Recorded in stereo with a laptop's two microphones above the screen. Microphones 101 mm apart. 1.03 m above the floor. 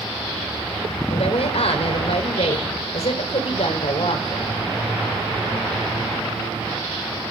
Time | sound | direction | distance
1.1 | a woman speaking | 75° left (ahead or behind) | 3.5 m